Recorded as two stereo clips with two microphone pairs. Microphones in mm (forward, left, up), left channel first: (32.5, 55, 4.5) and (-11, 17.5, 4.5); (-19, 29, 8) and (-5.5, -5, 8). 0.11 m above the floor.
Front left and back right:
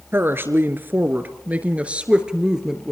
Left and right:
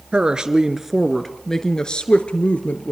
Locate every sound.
0.1 s a woman speaking: 120° right, 1.6 m; by 2.9 s 140° left, 1.9 m